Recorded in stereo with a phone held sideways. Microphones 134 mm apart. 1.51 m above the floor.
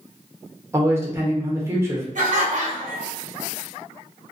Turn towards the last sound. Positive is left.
turn(degrees=-65)  # may be behind; listen again after turning